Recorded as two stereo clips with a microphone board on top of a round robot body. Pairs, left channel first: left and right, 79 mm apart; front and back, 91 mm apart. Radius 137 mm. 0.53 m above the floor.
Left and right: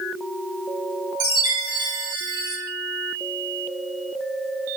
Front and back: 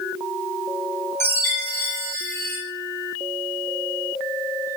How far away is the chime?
About 3 m.